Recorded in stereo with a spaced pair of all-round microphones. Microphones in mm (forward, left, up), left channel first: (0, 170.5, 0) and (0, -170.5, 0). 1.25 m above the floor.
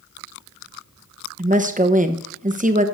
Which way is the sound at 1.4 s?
25° right (ahead or behind).